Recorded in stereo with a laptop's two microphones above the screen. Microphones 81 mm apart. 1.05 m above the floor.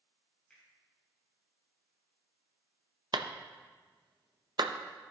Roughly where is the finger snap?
Centre.